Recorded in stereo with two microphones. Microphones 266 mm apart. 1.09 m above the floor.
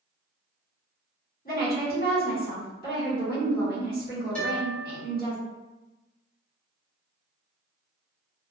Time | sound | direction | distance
1.4 | a woman speaking | 35° left (ahead or behind) | 1.6 m
4.3 | a guitar | 5° left (ahead or behind) | 1.6 m